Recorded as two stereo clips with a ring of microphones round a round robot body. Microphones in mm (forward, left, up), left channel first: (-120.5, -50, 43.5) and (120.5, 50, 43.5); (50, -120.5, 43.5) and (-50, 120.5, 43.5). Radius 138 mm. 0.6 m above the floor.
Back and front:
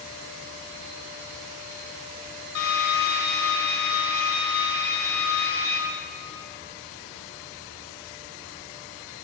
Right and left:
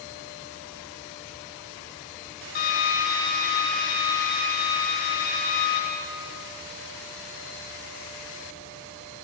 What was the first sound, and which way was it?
A drill, 120° right.